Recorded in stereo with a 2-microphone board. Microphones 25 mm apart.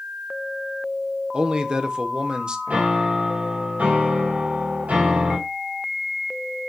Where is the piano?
70° right (ahead or behind), 2.5 m.